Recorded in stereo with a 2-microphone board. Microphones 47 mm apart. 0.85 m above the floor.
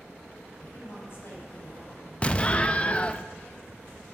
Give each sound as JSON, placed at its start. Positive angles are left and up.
{"t": 0.6, "sound": "a woman speaking", "side_deg": 50, "distance_m": 6.0}
{"t": 2.2, "sound": "an explosion", "side_deg": 25, "distance_m": 0.6}